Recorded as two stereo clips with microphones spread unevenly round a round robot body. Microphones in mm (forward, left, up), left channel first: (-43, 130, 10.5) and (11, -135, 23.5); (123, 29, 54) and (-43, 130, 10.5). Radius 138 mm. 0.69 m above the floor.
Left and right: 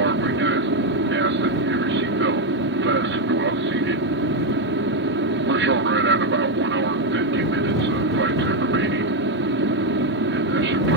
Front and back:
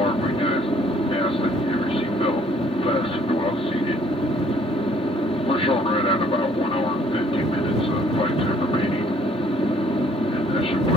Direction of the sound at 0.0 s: 100° right.